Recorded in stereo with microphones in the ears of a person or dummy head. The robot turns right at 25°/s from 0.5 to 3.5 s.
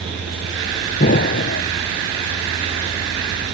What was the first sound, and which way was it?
An explosion, 40° left (ahead or behind).